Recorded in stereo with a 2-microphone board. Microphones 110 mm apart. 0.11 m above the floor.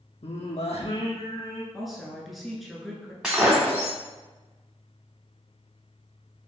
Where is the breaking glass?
10° right (ahead or behind), 1.9 m.